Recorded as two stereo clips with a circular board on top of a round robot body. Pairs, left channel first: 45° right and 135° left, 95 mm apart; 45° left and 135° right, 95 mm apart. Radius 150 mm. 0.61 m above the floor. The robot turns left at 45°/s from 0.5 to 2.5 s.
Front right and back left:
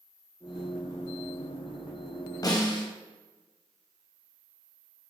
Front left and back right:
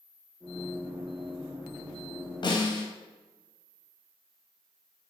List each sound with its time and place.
2.4 s a snare drum: straight ahead, 2.5 m